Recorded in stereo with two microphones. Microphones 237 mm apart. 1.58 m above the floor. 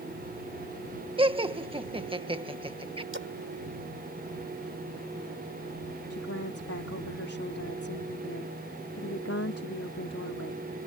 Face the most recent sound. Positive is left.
turn(degrees=80)